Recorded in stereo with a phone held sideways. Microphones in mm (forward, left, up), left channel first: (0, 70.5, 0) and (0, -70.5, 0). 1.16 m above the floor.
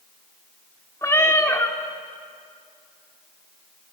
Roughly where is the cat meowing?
Left.